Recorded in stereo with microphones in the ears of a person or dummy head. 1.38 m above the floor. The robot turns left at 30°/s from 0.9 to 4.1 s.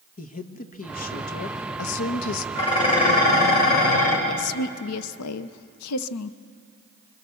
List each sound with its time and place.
0.2 s a woman speaking: 140° left, 1.1 m; by 2.5 s 95° left, 1.1 m
2.5 s dishes clattering: 150° left, 4.5 m; by 4.2 s 105° left, 4.5 m
4.3 s a woman speaking: 90° left, 0.7 m